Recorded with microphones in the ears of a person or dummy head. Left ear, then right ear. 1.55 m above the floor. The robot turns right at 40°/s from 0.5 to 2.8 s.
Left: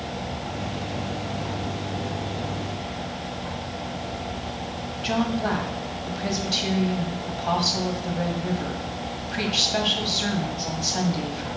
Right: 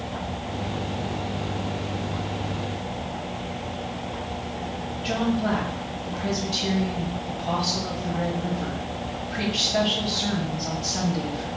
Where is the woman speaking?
50° left (ahead or behind), 1.9 m.